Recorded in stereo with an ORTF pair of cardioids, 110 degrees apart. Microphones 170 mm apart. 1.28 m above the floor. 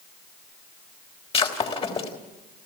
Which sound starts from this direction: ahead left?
Breaking glass, at 1.3 s.